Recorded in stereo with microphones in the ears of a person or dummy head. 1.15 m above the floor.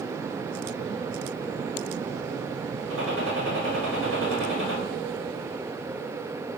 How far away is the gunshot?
About 1.3 m.